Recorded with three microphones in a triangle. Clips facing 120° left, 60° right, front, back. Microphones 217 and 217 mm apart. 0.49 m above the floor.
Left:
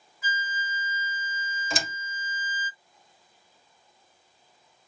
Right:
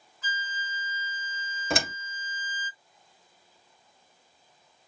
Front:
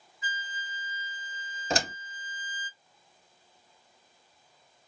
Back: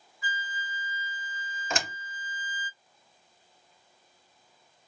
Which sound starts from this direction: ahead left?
A flute, at 0.2 s.